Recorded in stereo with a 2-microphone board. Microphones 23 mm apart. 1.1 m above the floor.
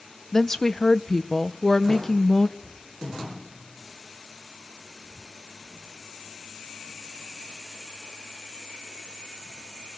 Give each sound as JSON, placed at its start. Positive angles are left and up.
{"t": 0.3, "sound": "a woman speaking", "side_deg": 25, "distance_m": 0.5}
{"t": 2.6, "sound": "a cupboard door", "side_deg": 40, "distance_m": 6.0}